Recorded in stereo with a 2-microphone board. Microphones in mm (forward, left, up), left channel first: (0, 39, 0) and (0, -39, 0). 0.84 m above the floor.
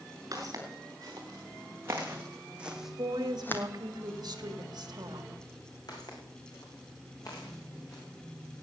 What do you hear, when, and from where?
0.3 s footsteps: 50° right (ahead or behind), 4.5 m; by 3.6 s 30° left (ahead or behind), 1.6 m
3.0 s a woman speaking: 65° right (ahead or behind), 1.7 m
5.9 s footsteps: 60° left (ahead or behind), 4.5 m; by 8.6 s 45° left (ahead or behind), 7 m